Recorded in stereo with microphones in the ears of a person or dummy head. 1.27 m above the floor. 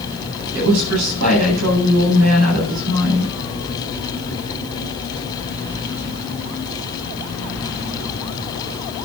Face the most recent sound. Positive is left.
turn(degrees=-90)